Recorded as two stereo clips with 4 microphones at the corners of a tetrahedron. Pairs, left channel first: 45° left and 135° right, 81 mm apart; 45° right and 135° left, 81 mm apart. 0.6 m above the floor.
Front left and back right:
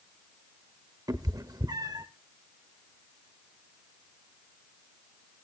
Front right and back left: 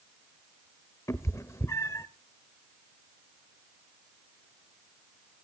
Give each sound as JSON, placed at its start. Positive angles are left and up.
{"t": 1.1, "sound": "a cat meowing", "azimuth_deg": -100, "distance_m": 0.8}